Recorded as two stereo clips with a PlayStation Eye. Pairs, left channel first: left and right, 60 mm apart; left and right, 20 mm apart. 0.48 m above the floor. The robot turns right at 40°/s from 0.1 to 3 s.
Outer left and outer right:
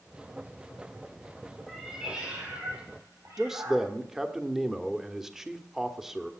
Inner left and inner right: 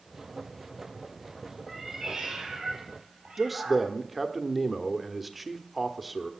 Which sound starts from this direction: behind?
A cat meowing, at 1.7 s.